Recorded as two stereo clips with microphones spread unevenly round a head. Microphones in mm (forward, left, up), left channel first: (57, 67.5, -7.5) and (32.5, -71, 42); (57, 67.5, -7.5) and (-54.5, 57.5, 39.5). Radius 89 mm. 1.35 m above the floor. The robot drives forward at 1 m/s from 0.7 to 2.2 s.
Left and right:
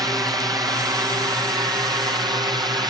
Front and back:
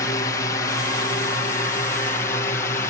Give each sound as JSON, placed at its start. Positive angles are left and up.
{"t": 0.0, "sound": "a drone", "azimuth_deg": -25}